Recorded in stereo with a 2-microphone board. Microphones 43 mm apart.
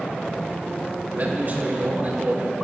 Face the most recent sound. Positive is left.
turn(degrees=-45)  # may be behind; listen again after turning